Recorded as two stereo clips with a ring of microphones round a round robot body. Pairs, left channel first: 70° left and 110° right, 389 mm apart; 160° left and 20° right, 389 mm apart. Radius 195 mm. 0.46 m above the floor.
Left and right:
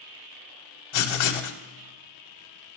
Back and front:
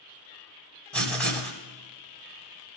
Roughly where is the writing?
Left.